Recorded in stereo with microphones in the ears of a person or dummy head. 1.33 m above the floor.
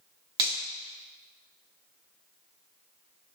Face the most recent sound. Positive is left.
turn(degrees=-25)  # may be behind; listen again after turning